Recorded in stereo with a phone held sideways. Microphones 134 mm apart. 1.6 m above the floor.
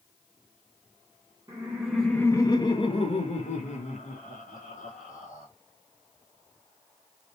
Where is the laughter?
25° right (ahead or behind), 0.6 m; by 5.5 s 75° left (ahead or behind), 2 m.